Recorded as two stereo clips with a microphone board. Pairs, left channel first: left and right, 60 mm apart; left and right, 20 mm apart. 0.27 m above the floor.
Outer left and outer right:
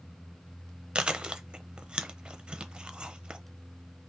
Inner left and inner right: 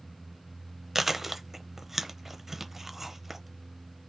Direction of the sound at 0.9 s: 15° right (ahead or behind).